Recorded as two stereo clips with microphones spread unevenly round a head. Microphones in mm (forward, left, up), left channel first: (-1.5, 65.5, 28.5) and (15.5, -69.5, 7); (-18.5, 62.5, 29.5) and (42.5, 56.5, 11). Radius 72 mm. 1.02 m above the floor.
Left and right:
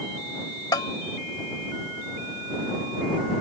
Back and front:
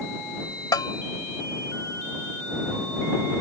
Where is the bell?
160° left.